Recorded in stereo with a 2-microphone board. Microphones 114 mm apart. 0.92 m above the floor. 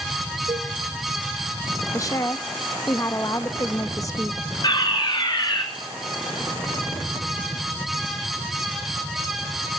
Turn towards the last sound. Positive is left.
turn(degrees=40)  # may be behind; listen again after turning